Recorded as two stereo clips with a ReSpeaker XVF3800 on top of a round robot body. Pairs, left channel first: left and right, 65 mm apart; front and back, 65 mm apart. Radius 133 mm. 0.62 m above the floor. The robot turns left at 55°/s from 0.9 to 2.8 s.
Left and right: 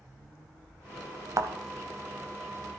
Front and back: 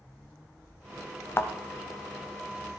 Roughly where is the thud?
Ahead right.